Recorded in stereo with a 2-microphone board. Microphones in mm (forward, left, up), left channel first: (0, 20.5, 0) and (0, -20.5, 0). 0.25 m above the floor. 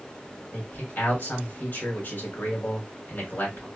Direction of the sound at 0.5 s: 60° left (ahead or behind).